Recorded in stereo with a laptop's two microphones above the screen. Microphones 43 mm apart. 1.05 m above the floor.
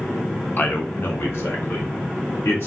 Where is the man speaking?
40° left (ahead or behind), 0.6 m; by 2.7 s 75° left (ahead or behind), 1.7 m.